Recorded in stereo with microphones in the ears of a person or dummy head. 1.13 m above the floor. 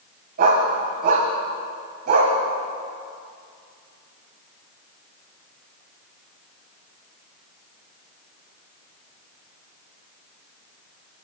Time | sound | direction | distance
0.4 | a dog barking | 45° right (ahead or behind) | 2.5 m